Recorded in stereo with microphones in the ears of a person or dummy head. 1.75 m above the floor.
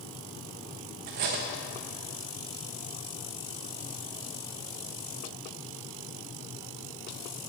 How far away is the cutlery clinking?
About 1.1 m.